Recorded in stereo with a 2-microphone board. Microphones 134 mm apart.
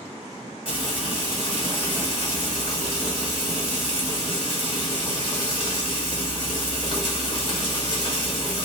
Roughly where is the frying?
Left.